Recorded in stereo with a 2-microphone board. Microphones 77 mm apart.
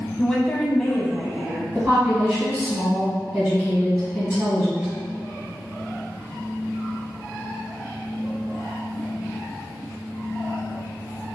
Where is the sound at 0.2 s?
5° left (ahead or behind), 1.1 m.